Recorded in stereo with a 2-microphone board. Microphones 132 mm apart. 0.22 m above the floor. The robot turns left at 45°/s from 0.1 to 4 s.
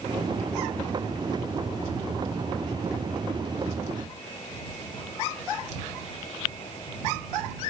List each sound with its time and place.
Only background noise.